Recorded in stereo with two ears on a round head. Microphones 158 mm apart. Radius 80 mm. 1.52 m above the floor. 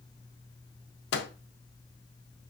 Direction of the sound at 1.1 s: 60° left (ahead or behind).